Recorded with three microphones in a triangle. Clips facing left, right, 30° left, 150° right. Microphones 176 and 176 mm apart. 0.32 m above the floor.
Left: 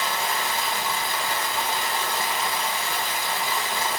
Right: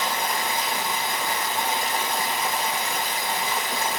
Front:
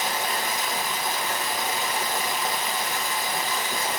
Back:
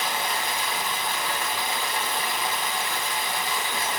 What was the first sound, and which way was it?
Running water, 20° right.